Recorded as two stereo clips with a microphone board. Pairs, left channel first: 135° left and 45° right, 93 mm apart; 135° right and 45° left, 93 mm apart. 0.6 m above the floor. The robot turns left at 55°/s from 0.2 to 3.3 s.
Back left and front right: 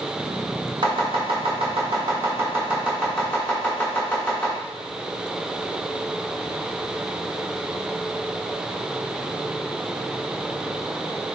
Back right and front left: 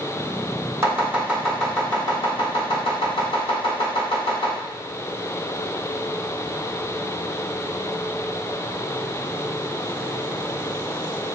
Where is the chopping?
15° right, 2 m; by 4.5 s 150° right, 2 m.